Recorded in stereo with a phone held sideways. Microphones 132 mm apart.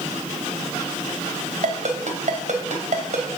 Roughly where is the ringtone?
Right.